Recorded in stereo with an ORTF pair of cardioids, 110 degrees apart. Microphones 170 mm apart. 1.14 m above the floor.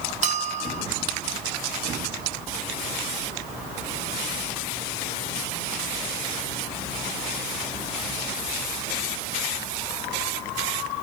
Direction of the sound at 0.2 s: 45° right.